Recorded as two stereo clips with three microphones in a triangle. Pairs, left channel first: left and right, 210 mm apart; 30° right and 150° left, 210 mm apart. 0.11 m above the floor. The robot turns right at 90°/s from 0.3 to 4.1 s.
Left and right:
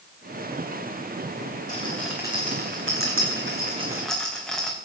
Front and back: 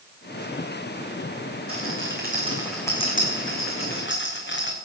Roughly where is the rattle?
Behind left.